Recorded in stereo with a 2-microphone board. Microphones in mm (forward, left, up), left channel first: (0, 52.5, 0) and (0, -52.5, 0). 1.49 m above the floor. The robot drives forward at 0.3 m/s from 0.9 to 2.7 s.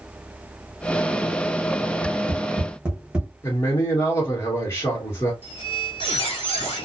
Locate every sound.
2.0 s tapping: 15° right (ahead or behind), 0.7 m; by 3.3 s 10° right (ahead or behind), 0.9 m
3.4 s a man speaking: 25° left (ahead or behind), 1.3 m
5.4 s a squeak: 50° left (ahead or behind), 1.6 m